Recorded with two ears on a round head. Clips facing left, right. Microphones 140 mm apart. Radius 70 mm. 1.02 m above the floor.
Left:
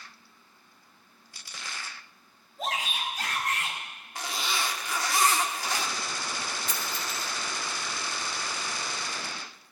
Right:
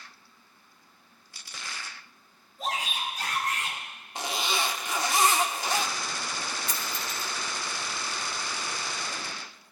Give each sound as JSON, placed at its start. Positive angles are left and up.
{"t": 2.6, "sound": "a shout", "side_deg": 65, "distance_m": 7.0}
{"t": 4.2, "sound": "a zipper", "side_deg": -20, "distance_m": 0.9}
{"t": 6.7, "sound": "a dropped coin", "side_deg": -35, "distance_m": 0.8}